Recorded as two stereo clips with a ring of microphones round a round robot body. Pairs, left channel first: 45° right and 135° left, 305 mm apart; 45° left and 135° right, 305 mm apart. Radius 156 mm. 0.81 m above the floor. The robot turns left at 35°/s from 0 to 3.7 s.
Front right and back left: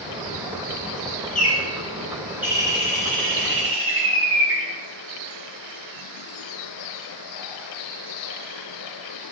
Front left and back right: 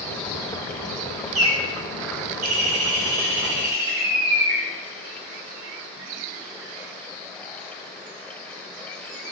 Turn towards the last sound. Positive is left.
turn(degrees=175)